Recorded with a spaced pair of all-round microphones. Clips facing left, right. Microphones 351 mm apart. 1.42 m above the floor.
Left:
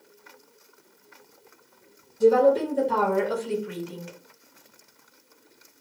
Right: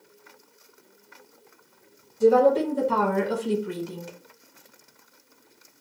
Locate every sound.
2.2 s a woman speaking: 5° left (ahead or behind), 1.1 m; by 4.1 s 50° right (ahead or behind), 0.7 m